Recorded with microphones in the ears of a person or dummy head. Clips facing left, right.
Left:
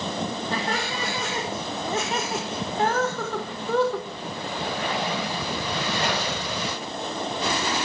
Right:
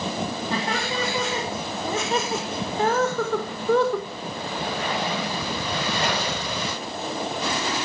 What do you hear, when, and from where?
0.5 s laughter: 65° right (ahead or behind), 3 m; by 4.1 s 70° right (ahead or behind), 1.7 m